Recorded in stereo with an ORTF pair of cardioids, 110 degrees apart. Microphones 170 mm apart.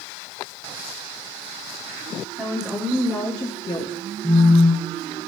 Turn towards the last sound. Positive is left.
turn(degrees=-20)